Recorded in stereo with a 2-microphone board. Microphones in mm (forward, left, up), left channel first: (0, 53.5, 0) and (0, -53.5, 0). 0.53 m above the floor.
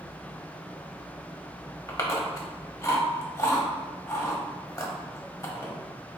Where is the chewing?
30° left (ahead or behind), 0.8 m.